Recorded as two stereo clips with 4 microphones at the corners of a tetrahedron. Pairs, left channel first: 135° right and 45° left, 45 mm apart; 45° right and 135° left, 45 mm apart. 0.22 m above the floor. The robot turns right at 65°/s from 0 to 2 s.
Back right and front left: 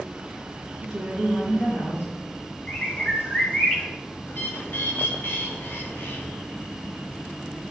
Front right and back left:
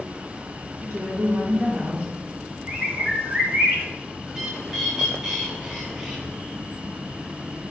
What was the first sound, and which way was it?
A woman speaking, 120° left.